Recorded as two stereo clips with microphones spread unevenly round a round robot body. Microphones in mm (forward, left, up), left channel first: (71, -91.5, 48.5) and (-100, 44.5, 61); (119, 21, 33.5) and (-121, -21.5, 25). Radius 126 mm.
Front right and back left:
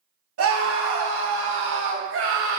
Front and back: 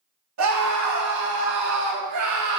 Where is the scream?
165° left, 4.5 m; by 2.6 s 170° left, 3 m.